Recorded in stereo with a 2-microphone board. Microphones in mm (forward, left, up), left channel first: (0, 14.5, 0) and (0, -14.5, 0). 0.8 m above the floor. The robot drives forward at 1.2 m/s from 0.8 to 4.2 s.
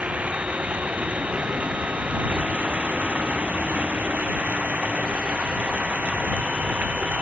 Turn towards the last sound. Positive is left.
turn(degrees=-65)  # may be behind; listen again after turning